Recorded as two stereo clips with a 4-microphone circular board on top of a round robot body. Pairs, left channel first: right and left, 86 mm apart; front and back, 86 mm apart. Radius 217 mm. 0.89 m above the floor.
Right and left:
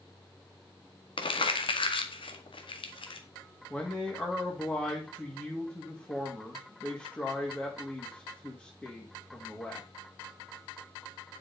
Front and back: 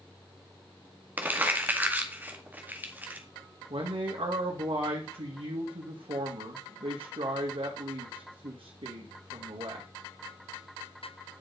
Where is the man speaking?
165° right, 2 m.